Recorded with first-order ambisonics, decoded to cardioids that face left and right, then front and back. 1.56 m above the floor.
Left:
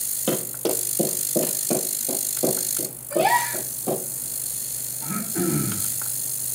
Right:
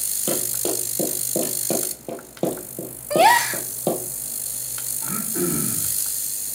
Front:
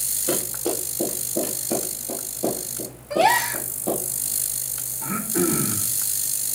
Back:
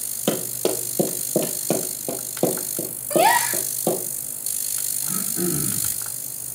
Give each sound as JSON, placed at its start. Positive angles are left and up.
{"t": 0.3, "sound": "running footsteps", "azimuth_deg": 170, "distance_m": 3.0}
{"t": 3.1, "sound": "a gasp", "azimuth_deg": -95, "distance_m": 0.9}
{"t": 5.0, "sound": "throat clearing", "azimuth_deg": -5, "distance_m": 1.9}